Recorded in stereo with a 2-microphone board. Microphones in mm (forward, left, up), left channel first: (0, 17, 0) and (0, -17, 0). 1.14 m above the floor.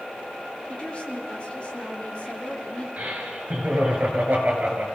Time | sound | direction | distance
0.7 | a woman speaking | 35° left (ahead or behind) | 4 m
3.0 | laughter | 50° right (ahead or behind) | 8 m